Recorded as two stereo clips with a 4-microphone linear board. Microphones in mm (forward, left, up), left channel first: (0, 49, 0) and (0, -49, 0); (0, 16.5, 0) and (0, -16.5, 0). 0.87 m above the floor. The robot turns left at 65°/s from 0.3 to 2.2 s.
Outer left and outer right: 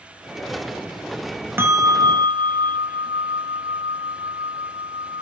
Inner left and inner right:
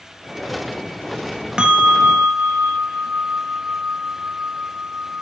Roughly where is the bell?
Ahead right.